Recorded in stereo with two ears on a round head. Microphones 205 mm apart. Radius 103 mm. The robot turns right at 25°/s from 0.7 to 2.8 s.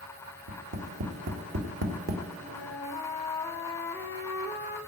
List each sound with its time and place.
0.5 s tapping: 80° right, 1.9 m; by 2.2 s 45° right (ahead or behind), 1.9 m
2.4 s a flute: 25° left (ahead or behind), 1.3 m; by 4.8 s 15° left (ahead or behind), 1.3 m